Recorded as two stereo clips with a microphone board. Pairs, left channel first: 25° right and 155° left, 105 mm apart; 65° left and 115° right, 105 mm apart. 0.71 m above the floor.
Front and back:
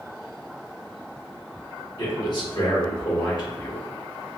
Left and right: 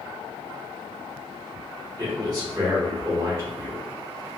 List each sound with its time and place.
2.0 s a man speaking: 60° right, 2.0 m